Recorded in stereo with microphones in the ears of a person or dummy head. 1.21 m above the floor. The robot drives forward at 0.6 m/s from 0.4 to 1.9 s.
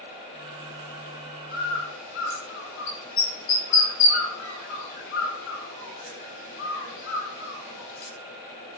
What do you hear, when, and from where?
1.5 s a bird: 65° left (ahead or behind), 3 m; by 8.1 s 70° left (ahead or behind), 2.5 m